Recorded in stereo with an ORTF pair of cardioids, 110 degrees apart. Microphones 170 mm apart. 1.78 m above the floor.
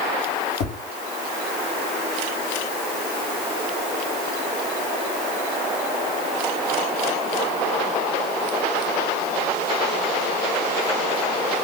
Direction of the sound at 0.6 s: 65° left.